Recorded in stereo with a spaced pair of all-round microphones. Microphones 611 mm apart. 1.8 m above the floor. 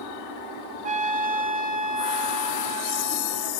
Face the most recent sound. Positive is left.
turn(degrees=-60)  # may be behind; listen again after turning